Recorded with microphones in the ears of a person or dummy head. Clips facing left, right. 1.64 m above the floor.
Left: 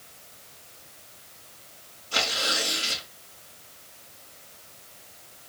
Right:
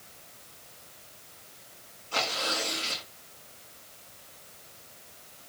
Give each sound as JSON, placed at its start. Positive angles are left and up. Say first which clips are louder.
{"t": 2.1, "sound": "tearing paper", "louder": "left 1 dB", "side_deg": 20, "distance_m": 5.5}